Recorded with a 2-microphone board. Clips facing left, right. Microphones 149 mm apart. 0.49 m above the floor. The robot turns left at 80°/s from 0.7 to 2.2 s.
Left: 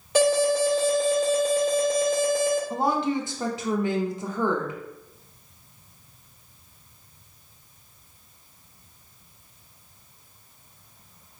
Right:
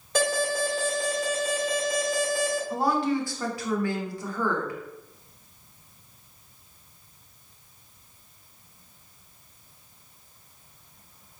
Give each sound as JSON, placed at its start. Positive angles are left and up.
{"t": 0.1, "sound": "an alarm", "azimuth_deg": 160, "distance_m": 2.0}
{"t": 2.7, "sound": "a woman speaking", "side_deg": 20, "distance_m": 0.7}